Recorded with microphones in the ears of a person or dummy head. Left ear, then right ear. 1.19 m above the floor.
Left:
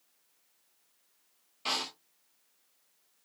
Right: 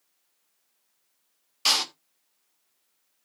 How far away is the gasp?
I don't hear a gasp.